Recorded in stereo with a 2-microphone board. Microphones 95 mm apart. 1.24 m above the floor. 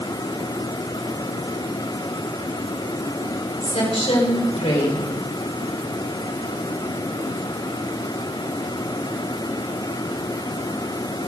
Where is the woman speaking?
80° left, 6 m.